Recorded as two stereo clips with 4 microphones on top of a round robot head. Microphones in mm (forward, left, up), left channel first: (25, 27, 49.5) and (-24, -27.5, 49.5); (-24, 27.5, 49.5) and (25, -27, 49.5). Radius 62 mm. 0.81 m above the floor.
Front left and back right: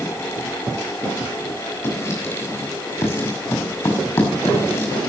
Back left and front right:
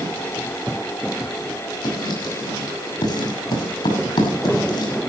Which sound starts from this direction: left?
Writing, at 1.8 s.